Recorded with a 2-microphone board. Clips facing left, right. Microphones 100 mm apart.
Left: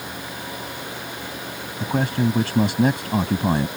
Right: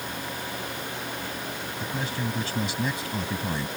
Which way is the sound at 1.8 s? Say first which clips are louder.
Left 11 dB; 60° left (ahead or behind).